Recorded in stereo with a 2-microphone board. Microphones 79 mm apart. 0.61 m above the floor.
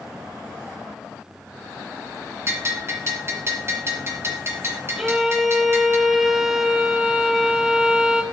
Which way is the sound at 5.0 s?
5° right (ahead or behind).